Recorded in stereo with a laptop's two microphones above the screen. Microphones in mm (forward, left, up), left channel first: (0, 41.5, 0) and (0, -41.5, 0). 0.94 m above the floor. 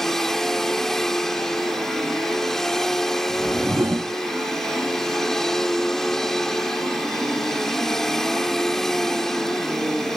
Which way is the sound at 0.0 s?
5° left (ahead or behind).